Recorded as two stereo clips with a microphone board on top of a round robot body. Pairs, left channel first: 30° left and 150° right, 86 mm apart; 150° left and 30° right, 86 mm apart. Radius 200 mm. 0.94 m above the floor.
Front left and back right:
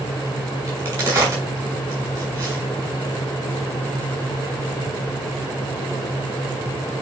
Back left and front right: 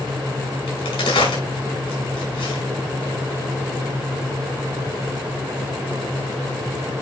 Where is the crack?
150° left, 6.5 m.